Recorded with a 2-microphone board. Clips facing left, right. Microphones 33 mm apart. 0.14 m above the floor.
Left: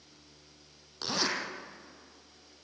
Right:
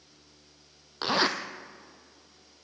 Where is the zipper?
35° right (ahead or behind), 1.5 m.